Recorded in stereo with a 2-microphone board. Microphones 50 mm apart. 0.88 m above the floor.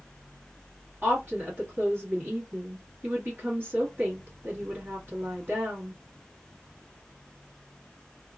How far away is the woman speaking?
About 1.4 m.